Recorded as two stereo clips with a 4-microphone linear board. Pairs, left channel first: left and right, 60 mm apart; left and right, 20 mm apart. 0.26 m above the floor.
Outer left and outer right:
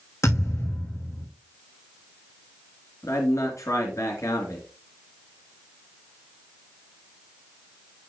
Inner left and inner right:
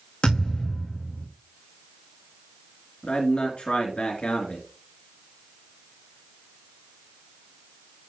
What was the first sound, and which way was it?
A thud, 60° left (ahead or behind).